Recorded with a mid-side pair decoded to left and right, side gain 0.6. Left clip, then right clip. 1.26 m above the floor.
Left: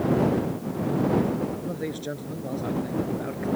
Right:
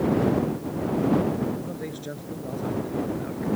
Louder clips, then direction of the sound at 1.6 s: Left 3 dB; 20° left.